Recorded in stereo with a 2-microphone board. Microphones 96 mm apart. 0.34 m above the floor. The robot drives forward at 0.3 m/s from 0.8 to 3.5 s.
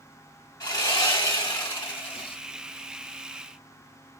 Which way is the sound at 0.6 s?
50° left (ahead or behind).